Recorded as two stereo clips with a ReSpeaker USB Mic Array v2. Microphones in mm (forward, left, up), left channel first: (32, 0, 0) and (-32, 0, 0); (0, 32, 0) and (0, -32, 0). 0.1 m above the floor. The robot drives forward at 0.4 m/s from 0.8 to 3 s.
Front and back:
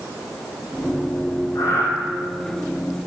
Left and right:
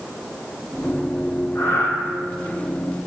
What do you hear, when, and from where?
1.6 s breathing: 35° left, 0.7 m; by 1.9 s 40° left, 0.6 m